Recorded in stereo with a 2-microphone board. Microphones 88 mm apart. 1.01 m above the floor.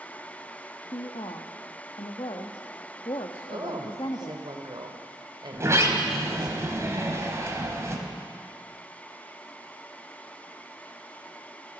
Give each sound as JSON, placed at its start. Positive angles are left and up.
{"t": 0.9, "sound": "a woman speaking", "side_deg": 70, "distance_m": 1.3}
{"t": 3.5, "sound": "a woman speaking", "side_deg": -55, "distance_m": 3.0}
{"t": 5.5, "sound": "a sliding door", "side_deg": -35, "distance_m": 3.0}